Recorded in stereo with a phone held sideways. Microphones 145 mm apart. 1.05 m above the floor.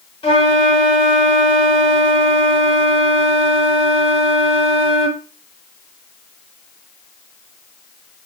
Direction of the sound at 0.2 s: 40° left (ahead or behind).